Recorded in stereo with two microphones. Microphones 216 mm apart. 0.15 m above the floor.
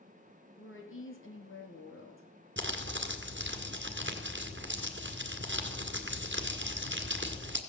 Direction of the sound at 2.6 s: 50° right (ahead or behind).